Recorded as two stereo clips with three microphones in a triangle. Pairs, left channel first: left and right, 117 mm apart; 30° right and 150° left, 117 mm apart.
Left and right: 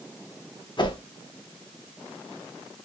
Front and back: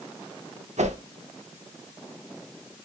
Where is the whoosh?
140° left, 0.6 m.